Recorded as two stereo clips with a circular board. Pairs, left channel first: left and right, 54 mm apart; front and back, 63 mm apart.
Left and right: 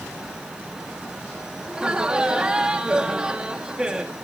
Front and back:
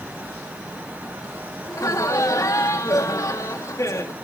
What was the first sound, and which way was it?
Laughter, 20° right.